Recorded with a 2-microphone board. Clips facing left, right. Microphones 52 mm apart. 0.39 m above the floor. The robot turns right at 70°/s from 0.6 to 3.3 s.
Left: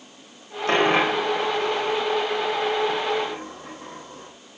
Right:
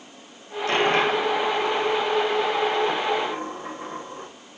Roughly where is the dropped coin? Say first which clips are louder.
Left 1 dB; left.